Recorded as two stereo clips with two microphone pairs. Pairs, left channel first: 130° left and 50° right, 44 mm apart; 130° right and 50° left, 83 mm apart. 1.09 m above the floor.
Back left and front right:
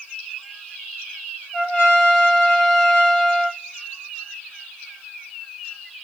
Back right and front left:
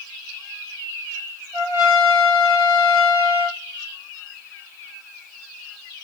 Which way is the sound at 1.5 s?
105° left.